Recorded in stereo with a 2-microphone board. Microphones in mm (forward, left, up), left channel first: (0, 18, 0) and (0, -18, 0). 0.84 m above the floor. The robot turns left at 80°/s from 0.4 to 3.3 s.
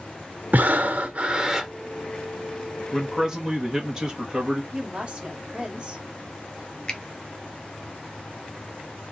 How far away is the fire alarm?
No fire alarm in this recording.